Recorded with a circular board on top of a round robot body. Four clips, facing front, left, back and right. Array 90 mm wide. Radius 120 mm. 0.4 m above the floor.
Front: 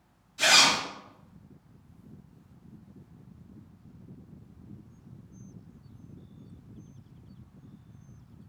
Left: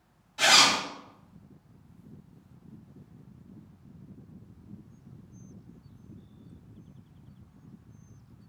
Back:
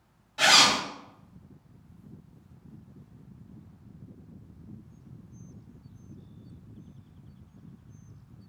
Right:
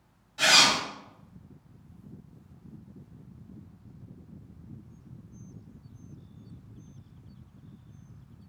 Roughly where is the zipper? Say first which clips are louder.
Left 1 dB, back 2 dB; behind.